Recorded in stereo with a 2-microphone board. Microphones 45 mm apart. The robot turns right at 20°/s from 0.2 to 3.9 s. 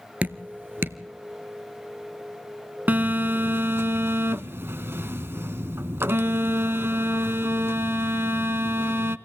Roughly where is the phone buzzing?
Right.